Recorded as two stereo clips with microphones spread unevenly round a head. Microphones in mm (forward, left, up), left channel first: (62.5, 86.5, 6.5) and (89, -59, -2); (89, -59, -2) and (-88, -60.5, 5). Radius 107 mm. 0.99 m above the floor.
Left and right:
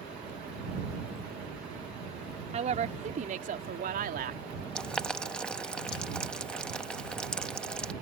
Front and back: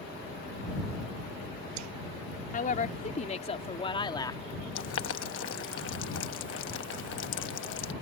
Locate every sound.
2.5 s a woman speaking: 40° right; by 4.4 s 70° right
4.8 s boiling: 15° left